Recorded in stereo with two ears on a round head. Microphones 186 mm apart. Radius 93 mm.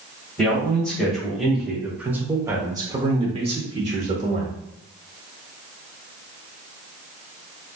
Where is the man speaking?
5° left (ahead or behind), 1.7 m; by 4.5 s 30° right (ahead or behind), 1.1 m.